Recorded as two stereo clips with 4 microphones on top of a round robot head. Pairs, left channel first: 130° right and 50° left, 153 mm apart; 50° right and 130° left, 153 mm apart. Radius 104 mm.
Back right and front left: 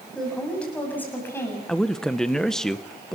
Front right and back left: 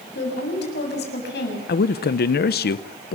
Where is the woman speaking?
40° right, 7 m; by 1.6 s 55° right, 7 m.